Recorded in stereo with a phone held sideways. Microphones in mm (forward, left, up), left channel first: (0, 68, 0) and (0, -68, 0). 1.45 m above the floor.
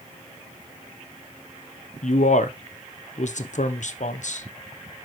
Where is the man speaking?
65° left (ahead or behind), 0.9 m.